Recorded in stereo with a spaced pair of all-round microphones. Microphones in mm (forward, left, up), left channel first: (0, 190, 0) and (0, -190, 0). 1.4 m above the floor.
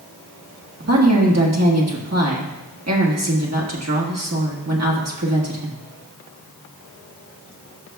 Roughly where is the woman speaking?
Right.